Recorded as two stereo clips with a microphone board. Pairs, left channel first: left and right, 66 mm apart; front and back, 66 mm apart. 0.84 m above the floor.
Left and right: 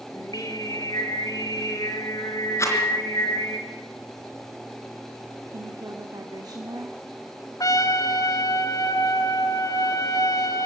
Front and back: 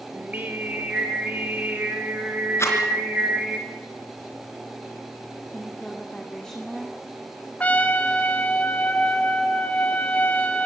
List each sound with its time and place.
0.1 s singing: 115° left, 3.5 m
2.6 s a rattle: 45° left, 3.5 m
5.5 s a woman speaking: 85° right, 1.9 m
7.6 s a trumpet: 65° left, 1.9 m